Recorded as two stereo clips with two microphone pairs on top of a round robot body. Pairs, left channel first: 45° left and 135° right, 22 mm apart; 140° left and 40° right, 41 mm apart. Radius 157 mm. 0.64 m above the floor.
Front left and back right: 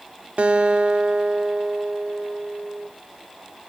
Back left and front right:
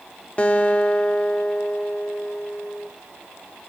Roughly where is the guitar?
Behind.